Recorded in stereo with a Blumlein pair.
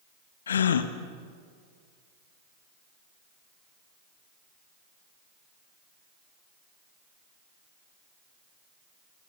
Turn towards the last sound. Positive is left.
turn(degrees=65)